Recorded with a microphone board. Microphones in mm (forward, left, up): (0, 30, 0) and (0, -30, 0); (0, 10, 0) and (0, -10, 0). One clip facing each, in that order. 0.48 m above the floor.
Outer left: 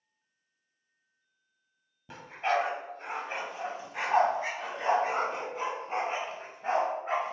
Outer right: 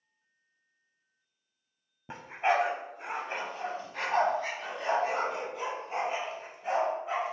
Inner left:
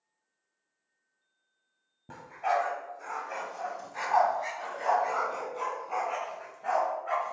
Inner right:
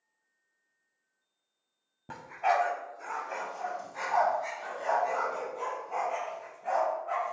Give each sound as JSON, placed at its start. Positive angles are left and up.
{"t": 2.1, "sound": "a dog barking", "side_deg": -30, "distance_m": 1.2}